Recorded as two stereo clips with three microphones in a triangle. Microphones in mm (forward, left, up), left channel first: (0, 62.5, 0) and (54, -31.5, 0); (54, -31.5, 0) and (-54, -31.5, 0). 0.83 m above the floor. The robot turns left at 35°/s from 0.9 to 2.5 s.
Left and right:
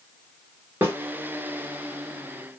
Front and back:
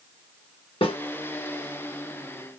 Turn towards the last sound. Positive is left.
turn(degrees=-45)